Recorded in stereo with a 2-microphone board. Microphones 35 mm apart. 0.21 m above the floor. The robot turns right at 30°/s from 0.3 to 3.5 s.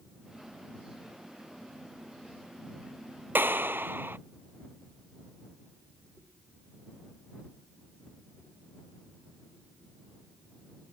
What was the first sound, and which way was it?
A clap, 70° right (ahead or behind).